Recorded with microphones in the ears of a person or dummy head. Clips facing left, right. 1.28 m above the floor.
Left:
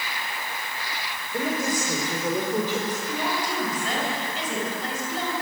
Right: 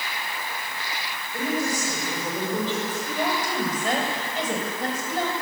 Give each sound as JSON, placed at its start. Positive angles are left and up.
{"t": 1.3, "sound": "a woman speaking", "side_deg": 20, "distance_m": 5.0}
{"t": 3.1, "sound": "a woman speaking", "side_deg": -45, "distance_m": 7.0}